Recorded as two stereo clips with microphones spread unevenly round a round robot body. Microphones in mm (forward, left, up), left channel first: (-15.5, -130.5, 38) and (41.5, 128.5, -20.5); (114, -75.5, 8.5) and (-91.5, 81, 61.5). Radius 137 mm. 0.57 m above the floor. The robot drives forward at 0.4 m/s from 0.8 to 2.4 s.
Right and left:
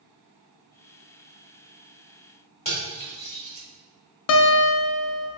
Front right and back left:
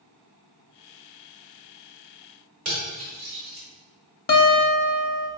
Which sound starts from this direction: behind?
Cutlery clinking, at 2.6 s.